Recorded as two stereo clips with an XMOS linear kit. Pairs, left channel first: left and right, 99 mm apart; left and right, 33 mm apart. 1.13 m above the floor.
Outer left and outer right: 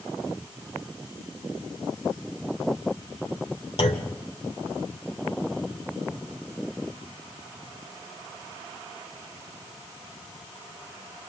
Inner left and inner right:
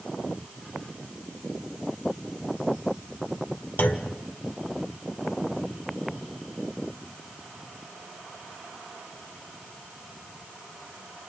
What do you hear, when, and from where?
3.8 s a clunk: 70° left (ahead or behind), 1.6 m